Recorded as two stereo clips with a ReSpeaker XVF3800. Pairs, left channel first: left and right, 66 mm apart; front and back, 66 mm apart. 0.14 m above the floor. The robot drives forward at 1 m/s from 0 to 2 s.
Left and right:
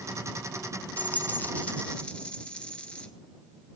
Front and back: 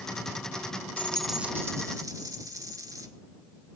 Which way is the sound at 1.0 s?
40° left.